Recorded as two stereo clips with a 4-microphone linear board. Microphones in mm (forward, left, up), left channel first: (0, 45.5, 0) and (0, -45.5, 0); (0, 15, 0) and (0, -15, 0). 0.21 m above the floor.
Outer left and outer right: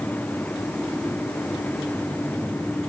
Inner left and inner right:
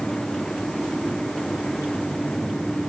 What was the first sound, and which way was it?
Only background noise.